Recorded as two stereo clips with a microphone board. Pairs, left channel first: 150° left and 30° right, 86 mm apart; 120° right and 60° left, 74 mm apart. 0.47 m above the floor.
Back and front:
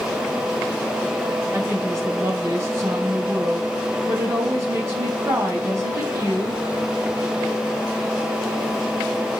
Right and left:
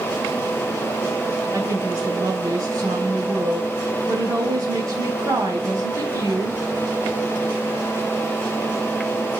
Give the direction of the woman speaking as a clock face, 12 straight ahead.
11 o'clock.